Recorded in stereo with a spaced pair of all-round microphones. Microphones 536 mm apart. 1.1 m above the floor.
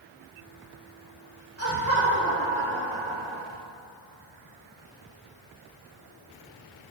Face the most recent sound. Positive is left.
turn(degrees=-35)  # may be behind; listen again after turning